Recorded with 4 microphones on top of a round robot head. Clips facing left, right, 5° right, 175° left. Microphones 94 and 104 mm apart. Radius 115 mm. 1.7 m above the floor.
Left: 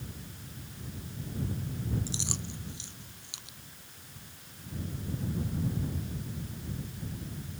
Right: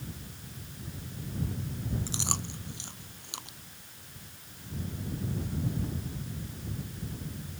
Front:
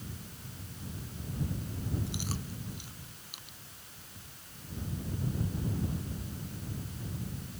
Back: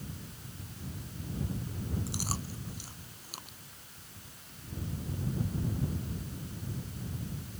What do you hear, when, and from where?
2.1 s chewing: 130° right